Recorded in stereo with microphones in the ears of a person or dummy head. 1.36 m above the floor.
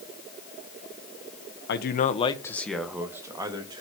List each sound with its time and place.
1.7 s a man speaking: 65° left (ahead or behind), 1.1 m; by 3.8 s 20° right (ahead or behind), 2.5 m